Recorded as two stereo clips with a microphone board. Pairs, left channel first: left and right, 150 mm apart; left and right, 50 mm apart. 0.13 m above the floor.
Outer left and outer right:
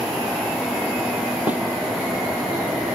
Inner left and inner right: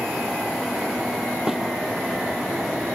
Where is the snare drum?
10° right (ahead or behind), 1.8 m.